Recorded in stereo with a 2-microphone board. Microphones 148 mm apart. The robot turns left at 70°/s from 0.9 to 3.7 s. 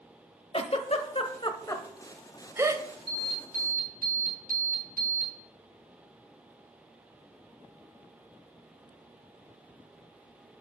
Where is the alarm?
40° right, 4 m; by 5.3 s 80° right, 4 m.